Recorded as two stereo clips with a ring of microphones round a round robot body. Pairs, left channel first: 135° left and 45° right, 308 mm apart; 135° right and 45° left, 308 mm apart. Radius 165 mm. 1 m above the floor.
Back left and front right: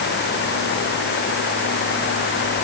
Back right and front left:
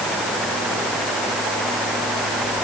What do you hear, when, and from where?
Only background noise.